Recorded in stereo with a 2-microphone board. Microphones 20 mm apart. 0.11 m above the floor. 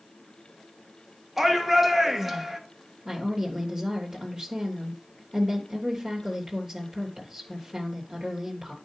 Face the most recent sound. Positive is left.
turn(degrees=-30)  # may be behind; listen again after turning